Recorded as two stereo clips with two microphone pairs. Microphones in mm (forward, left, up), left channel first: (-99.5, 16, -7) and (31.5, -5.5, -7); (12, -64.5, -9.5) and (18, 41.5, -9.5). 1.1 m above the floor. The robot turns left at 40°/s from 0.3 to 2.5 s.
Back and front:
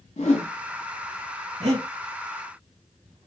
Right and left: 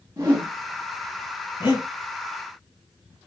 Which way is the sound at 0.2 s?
135° left.